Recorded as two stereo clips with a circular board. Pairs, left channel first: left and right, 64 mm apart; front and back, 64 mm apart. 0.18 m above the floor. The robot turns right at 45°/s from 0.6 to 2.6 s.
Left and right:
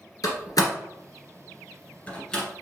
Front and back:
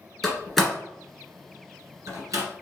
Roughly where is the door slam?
Left.